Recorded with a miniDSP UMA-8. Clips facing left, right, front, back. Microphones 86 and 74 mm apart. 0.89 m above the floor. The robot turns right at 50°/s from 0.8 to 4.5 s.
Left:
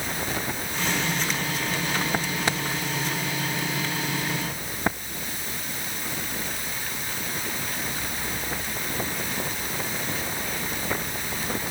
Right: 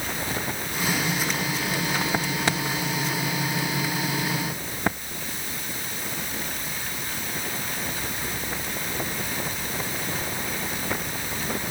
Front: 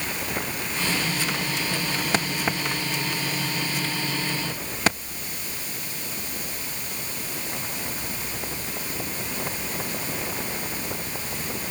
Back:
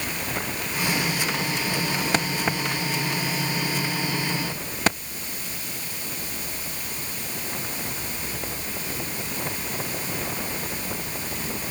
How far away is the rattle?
No rattle in this recording.